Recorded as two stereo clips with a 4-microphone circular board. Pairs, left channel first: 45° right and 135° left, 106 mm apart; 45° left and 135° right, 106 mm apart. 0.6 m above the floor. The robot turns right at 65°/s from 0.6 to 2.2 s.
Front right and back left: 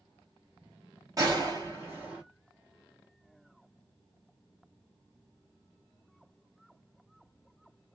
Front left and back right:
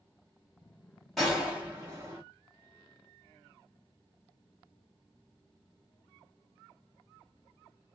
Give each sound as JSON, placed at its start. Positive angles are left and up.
{"t": 1.2, "sound": "a gunshot", "azimuth_deg": 130, "distance_m": 1.4}